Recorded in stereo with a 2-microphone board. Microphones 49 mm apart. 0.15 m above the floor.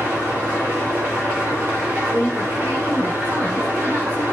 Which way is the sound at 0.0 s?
30° right (ahead or behind).